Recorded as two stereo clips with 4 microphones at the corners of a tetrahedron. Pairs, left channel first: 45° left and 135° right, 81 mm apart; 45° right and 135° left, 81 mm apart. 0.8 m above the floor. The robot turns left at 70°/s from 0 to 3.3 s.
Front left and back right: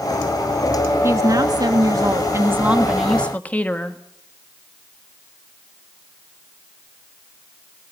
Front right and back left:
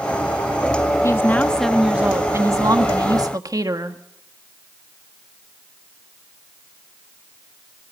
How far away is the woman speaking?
About 1.3 m.